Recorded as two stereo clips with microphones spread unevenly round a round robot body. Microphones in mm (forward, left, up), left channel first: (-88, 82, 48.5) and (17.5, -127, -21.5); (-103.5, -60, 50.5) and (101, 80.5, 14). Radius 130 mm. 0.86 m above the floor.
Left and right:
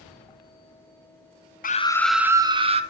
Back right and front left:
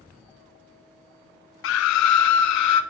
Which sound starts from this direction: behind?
A scream, at 1.6 s.